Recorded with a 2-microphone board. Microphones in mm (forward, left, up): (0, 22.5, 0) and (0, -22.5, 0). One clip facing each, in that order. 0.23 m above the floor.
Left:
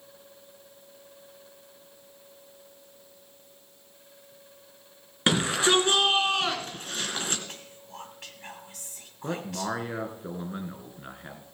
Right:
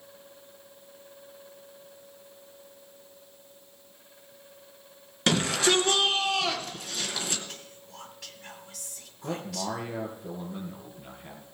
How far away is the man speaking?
About 2.5 m.